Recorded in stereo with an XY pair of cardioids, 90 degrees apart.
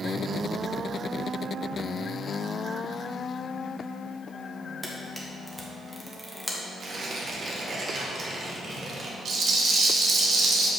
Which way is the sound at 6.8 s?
50° right.